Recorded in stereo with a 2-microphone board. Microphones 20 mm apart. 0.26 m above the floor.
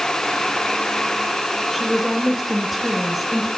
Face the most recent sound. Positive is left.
turn(degrees=-5)  # may be behind; listen again after turning